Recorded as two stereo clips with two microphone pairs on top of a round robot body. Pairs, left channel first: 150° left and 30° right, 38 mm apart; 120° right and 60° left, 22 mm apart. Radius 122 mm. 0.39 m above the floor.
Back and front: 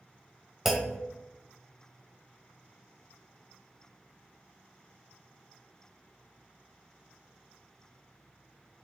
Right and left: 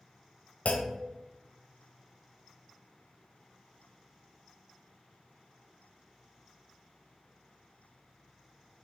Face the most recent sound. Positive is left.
turn(degrees=-115)